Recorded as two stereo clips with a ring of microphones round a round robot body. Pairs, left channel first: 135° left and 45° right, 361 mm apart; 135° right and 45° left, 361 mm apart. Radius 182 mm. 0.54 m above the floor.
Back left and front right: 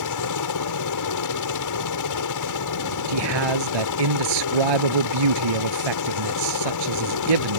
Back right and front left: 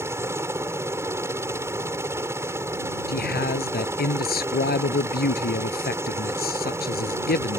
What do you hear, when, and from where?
0.0 s a helicopter: 125° left
3.1 s a man speaking: 70° right